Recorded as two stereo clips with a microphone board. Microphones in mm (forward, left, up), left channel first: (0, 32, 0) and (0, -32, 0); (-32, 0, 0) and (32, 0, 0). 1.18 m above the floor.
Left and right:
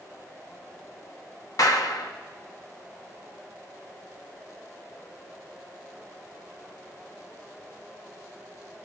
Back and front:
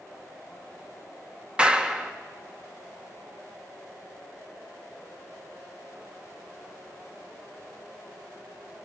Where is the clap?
70° left, 1.9 m.